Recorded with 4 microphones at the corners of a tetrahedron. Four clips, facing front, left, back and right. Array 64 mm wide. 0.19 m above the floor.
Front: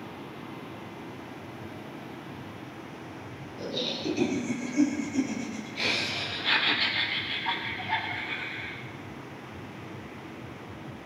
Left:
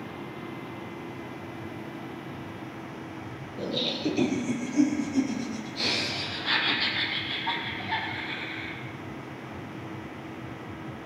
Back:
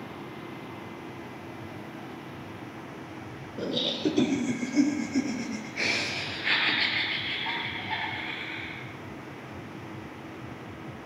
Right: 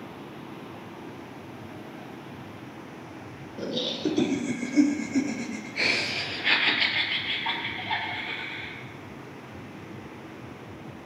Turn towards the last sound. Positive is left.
turn(degrees=-85)